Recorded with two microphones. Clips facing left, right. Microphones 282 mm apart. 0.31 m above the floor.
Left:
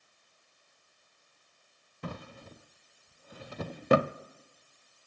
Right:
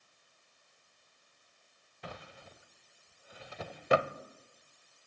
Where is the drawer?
55° left (ahead or behind), 0.6 m.